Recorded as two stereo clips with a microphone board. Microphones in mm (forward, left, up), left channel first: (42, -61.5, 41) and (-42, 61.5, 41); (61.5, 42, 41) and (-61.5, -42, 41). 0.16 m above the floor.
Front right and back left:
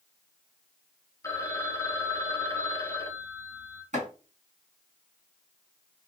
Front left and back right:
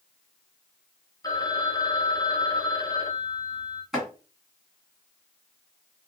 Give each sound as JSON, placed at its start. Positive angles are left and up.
{"t": 1.2, "sound": "a phone ringing", "azimuth_deg": -5, "distance_m": 0.8}
{"t": 3.9, "sound": "chopping", "azimuth_deg": 130, "distance_m": 2.5}